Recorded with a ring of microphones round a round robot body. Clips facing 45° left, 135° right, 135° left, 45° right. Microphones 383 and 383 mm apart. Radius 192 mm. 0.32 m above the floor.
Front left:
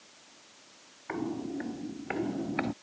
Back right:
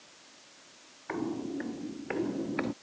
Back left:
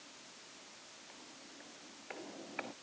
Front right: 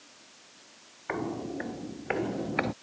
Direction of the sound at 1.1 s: 45° right.